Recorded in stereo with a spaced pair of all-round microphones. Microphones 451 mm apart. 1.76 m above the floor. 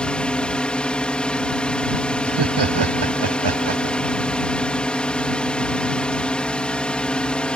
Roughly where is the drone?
Centre.